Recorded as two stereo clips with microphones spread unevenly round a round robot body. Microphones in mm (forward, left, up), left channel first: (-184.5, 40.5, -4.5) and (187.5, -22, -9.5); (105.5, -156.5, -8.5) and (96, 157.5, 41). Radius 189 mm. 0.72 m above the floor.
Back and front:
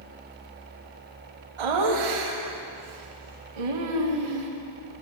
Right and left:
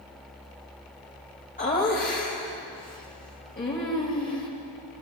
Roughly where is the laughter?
Ahead right.